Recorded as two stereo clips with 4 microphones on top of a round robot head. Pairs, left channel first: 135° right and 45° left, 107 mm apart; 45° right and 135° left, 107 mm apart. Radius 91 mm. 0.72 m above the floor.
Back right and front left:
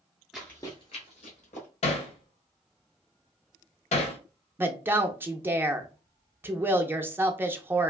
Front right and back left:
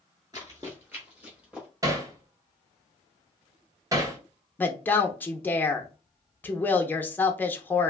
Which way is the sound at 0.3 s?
130° left.